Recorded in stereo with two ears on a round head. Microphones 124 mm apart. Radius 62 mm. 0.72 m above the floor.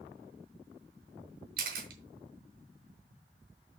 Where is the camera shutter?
75° right (ahead or behind), 3.5 m.